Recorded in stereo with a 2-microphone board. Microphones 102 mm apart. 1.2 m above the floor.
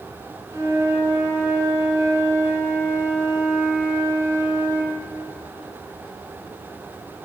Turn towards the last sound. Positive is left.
turn(degrees=-30)  # may be behind; listen again after turning